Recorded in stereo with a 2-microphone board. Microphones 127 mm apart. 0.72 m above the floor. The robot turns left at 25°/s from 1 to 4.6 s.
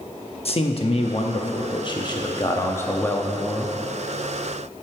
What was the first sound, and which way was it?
A man speaking, 70° left.